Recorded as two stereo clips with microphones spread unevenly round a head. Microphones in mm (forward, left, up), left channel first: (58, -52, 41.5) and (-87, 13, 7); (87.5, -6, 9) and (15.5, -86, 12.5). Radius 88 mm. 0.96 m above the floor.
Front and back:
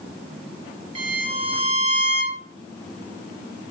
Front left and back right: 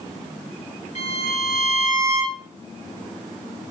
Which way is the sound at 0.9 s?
95° left.